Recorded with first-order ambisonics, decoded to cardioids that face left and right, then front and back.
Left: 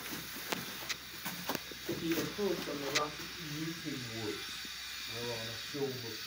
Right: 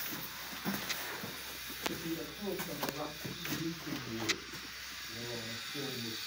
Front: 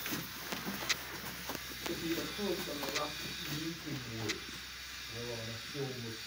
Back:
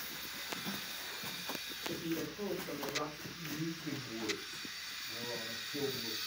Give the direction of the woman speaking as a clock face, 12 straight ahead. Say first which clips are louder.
Left 4 dB, front 3 dB; 9 o'clock.